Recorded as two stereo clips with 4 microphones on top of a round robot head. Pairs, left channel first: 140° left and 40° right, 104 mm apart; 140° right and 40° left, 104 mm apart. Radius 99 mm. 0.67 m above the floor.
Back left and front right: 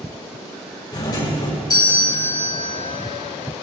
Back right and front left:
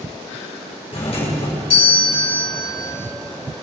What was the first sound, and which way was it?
A doorbell, 170° right.